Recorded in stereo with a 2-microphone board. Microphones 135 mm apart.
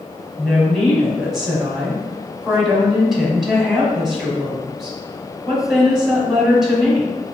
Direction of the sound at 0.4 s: 5° right (ahead or behind).